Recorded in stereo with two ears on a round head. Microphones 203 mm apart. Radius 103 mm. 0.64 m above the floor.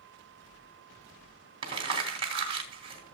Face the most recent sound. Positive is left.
turn(degrees=-25)  # may be behind; listen again after turning